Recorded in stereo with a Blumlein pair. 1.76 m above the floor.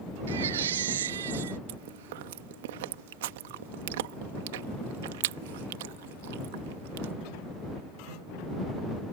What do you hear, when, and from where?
0.3 s a baby crying: 60° right
1.7 s chewing: 55° right